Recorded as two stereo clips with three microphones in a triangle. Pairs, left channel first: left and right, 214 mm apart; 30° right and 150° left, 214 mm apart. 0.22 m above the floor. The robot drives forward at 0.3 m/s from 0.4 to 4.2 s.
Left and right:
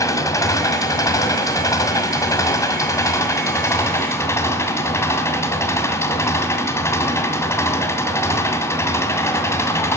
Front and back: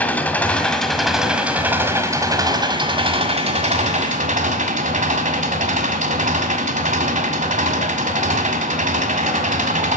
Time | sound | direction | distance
0.0 | an engine running | 40° left | 1.2 m